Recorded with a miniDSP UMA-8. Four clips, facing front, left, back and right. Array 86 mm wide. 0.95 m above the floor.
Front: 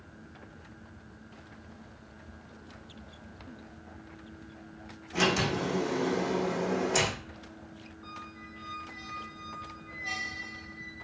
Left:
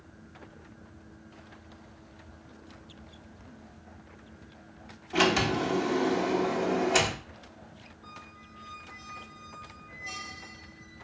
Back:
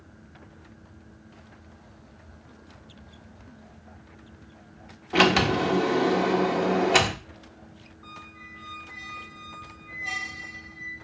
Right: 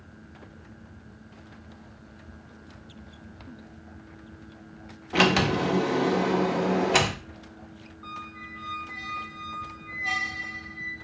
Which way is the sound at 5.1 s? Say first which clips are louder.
Right 3 dB, back 7 dB; 150° right.